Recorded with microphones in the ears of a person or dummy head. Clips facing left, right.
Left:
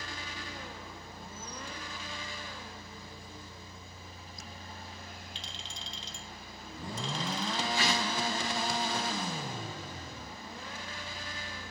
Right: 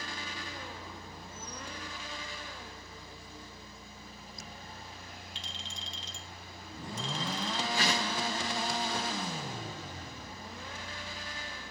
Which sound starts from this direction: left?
A clink, at 5.3 s.